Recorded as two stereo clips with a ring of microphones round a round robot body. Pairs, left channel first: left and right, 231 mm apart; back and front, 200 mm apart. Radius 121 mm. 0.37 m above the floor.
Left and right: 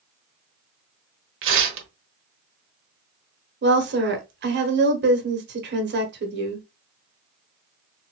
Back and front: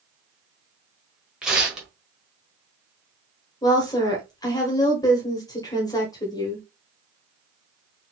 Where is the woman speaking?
110° right, 1.3 m.